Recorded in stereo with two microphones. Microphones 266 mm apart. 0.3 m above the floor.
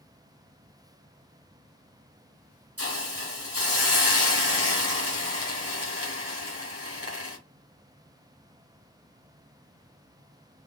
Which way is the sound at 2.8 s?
60° right (ahead or behind).